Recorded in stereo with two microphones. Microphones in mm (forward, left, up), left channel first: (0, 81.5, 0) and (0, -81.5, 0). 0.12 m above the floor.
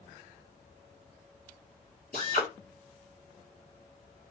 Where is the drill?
60° left (ahead or behind), 3.5 m.